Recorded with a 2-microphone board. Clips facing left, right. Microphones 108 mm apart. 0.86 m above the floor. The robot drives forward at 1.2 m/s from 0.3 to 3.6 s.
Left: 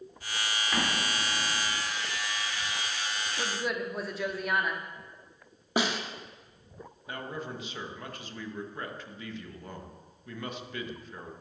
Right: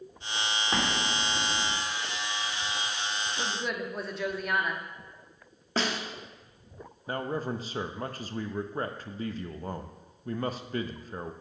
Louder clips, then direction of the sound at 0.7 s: Right 1 dB; 30° right (ahead or behind).